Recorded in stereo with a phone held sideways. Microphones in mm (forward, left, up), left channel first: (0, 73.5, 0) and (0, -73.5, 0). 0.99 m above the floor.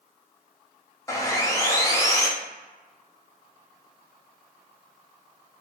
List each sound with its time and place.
1.1 s sawing: 20° left (ahead or behind), 0.5 m